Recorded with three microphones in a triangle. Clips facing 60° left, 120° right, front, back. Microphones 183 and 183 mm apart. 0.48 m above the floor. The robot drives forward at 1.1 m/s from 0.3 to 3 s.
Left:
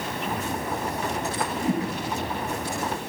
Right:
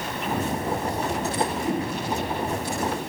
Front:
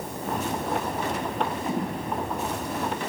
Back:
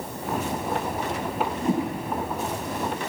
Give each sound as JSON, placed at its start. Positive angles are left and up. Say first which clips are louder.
{"t": 1.6, "sound": "a whoosh", "louder": "left 1 dB, back 4 dB", "azimuth_deg": 120, "distance_m": 3.5}